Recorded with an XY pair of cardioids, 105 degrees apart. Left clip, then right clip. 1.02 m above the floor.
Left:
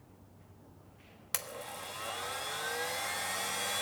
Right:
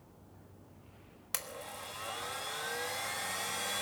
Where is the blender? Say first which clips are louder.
Left 2 dB; 10° left, 1.3 m.